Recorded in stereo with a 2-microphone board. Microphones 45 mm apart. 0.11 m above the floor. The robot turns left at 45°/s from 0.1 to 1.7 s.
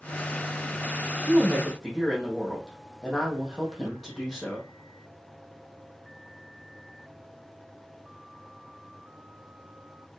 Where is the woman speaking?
20° right (ahead or behind), 4.5 m; by 4.7 s centre (ahead or behind), 4.5 m.